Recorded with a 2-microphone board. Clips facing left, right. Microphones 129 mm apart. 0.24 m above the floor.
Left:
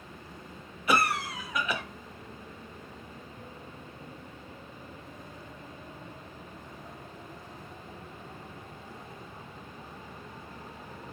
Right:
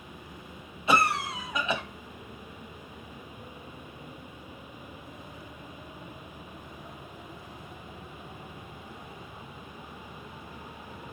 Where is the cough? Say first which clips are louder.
Right 2 dB; 25° right (ahead or behind), 1.1 m.